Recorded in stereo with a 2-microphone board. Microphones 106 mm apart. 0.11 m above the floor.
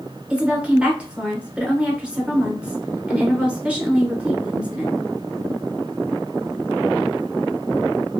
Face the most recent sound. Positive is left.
turn(degrees=-10)  # may be behind; listen again after turning